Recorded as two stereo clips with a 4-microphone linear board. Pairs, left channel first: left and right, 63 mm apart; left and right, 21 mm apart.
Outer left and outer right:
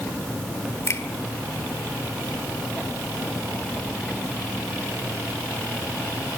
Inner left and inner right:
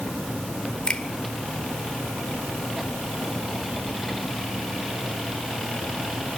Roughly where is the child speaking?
No child speaking in this recording.